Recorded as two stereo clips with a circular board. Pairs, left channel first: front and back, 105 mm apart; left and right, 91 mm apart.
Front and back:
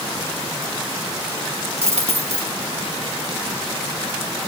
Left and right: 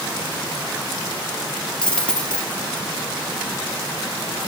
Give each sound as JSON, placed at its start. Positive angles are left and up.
{"t": 1.8, "sound": "a dropped coin", "azimuth_deg": 170, "distance_m": 3.0}